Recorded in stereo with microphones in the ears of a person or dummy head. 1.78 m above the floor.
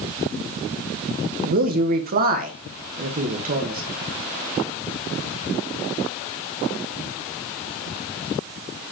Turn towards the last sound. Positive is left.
turn(degrees=-45)  # may be behind; listen again after turning